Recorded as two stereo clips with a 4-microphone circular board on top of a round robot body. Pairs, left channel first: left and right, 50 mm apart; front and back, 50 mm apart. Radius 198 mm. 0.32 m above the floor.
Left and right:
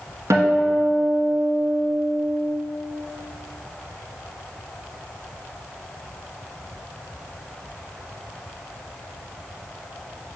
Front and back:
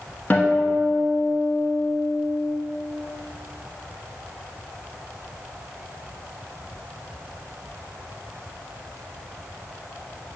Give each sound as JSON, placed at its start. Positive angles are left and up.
{"t": 0.3, "sound": "a guitar", "azimuth_deg": -65, "distance_m": 1.2}